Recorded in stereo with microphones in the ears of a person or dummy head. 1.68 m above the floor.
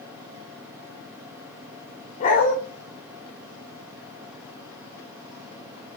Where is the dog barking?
40° left (ahead or behind), 2 m.